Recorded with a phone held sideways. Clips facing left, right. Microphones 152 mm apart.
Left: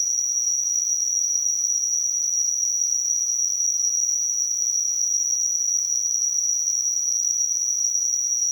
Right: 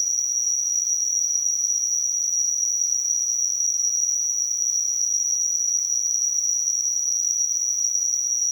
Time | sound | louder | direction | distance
0.0 | an insect | even | 25° right (ahead or behind) | 1.0 m